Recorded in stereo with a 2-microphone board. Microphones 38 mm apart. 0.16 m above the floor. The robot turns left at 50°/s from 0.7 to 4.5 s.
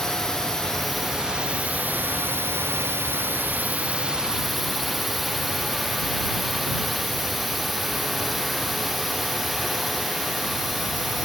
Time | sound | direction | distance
0.0 | a drone | 10° left | ?